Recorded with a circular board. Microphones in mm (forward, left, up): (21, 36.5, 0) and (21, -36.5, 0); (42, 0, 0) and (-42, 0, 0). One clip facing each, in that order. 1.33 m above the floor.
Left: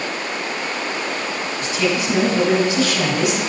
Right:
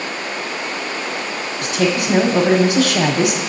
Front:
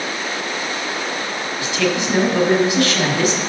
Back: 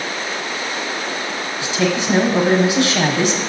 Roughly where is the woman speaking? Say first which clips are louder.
Right 3 dB, back 1 dB; right.